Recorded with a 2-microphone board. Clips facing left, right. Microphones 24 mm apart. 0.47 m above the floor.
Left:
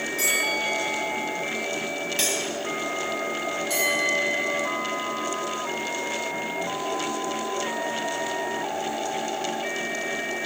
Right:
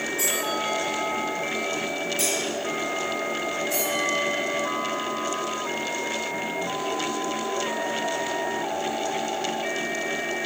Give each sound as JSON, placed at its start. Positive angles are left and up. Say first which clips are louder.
{"t": 0.2, "sound": "a bell", "louder": "left 4 dB", "side_deg": 65, "distance_m": 4.5}
{"t": 2.2, "sound": "cutlery clinking", "louder": "left 1 dB", "side_deg": 60, "distance_m": 2.0}
{"t": 3.7, "sound": "a bell", "louder": "left 4 dB", "side_deg": 85, "distance_m": 4.5}